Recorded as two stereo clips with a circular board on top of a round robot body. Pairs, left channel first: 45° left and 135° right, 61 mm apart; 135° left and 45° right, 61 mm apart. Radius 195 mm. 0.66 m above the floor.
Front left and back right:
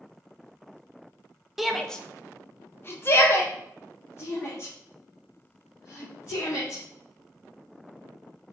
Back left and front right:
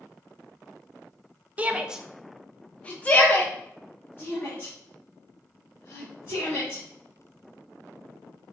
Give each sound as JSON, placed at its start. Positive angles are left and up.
{"t": 1.6, "sound": "a shout", "azimuth_deg": -55, "distance_m": 0.7}